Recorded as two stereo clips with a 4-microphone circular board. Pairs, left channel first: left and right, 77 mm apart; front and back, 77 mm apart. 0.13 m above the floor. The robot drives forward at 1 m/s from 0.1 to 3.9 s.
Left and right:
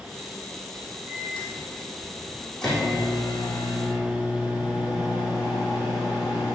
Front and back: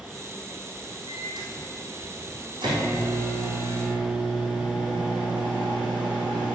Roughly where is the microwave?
Behind.